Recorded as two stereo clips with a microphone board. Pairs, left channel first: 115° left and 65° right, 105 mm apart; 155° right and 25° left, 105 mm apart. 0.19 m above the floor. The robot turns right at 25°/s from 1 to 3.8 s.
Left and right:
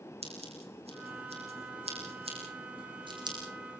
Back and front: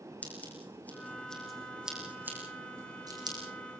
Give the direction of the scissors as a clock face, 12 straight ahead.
3 o'clock.